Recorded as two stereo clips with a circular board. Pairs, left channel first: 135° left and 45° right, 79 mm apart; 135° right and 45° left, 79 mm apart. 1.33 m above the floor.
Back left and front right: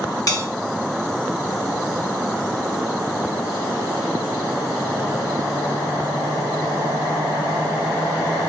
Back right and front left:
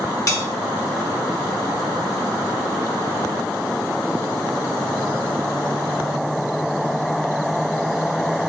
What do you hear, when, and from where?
0.3 s a bell: 175° left, 1.3 m